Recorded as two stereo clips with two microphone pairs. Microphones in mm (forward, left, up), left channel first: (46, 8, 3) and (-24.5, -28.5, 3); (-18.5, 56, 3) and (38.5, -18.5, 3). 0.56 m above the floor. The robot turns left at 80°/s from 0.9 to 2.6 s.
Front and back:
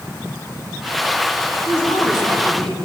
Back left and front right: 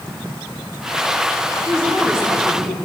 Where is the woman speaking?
65° right, 4 m; by 2.8 s 140° right, 4 m.